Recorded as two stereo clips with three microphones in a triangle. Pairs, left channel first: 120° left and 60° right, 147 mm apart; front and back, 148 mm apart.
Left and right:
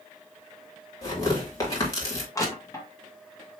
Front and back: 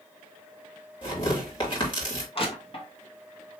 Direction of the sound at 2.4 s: 50° left.